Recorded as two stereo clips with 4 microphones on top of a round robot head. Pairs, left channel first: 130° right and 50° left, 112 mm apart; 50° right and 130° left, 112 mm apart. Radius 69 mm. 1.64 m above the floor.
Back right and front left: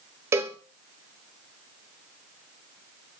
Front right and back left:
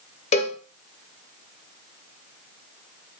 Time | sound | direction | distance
0.3 | a cowbell | 20° right | 0.5 m